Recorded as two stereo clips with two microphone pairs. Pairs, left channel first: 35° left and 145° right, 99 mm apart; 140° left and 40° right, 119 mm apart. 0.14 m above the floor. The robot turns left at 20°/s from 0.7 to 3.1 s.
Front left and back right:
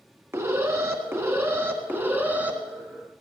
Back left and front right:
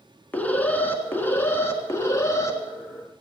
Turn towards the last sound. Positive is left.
turn(degrees=150)